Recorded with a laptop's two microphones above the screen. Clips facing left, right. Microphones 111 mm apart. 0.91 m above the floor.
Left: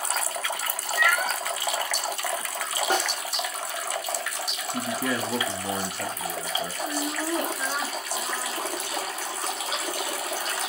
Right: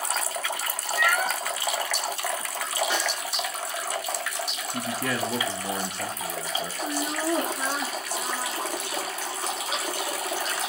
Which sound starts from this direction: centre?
A man speaking, at 4.7 s.